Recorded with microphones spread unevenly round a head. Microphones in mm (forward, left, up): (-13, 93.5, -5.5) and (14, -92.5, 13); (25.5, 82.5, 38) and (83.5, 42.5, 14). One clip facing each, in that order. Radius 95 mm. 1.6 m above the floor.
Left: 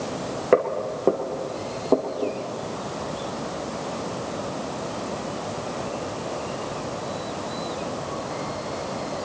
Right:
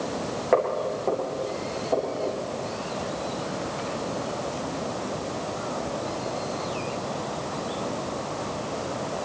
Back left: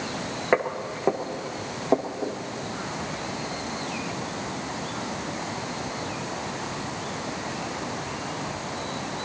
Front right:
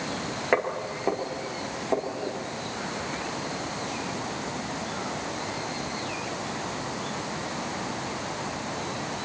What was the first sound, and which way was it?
Footsteps, 90° left.